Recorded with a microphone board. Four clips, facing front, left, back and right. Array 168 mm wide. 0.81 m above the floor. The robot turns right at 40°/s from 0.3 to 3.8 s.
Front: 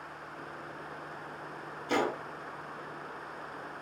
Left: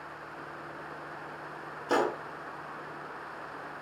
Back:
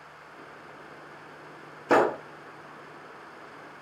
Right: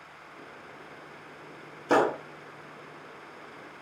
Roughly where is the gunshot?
Behind right.